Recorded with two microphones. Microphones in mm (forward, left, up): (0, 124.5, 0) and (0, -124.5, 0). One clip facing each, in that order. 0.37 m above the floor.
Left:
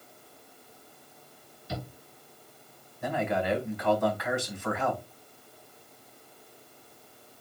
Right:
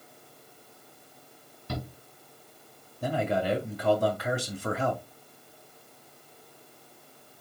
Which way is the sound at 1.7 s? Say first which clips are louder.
Right 2 dB; 65° right (ahead or behind).